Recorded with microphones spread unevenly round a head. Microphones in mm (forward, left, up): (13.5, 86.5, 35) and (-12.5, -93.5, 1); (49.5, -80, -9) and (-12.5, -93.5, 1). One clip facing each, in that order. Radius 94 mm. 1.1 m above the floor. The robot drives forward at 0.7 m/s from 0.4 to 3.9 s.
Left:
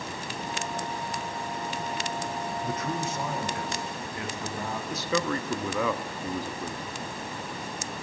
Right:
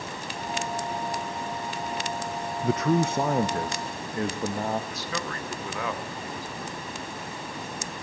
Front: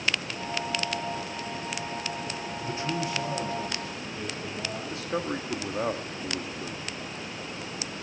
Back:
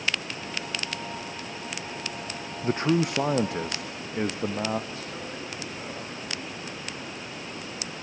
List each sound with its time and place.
2.6 s a man speaking: 115° right, 0.6 m; by 4.8 s 155° right, 1.3 m
4.9 s a man speaking: 75° left, 1.5 m